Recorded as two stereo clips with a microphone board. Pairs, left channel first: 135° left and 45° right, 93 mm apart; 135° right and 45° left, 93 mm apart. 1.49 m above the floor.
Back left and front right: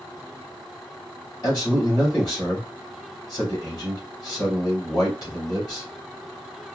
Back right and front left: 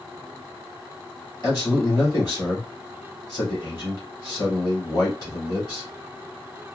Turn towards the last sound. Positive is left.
turn(degrees=180)